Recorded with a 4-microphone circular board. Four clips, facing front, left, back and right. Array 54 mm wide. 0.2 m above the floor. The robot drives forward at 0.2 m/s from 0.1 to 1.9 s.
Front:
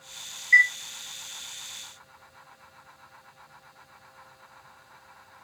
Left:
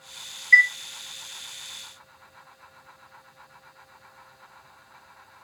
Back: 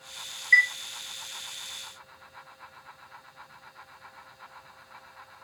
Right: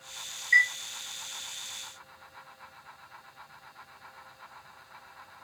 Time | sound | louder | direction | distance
0.5 | a chime | left 6 dB, front 2 dB | 140° left | 1.5 m